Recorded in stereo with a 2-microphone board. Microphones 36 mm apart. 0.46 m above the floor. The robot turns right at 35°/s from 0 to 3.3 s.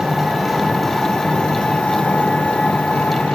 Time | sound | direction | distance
0.0 | an engine running | 20° right | 2.5 m